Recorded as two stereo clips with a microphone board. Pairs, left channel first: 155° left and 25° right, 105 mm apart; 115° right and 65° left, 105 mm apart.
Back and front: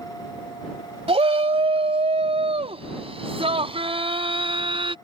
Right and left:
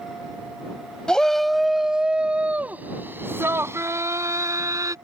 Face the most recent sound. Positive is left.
turn(degrees=10)